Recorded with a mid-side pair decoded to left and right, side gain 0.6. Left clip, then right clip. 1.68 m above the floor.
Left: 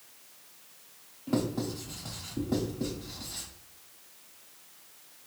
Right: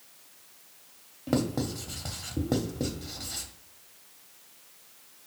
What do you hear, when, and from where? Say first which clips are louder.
1.3 s writing: right 2 dB; 45° right, 0.8 m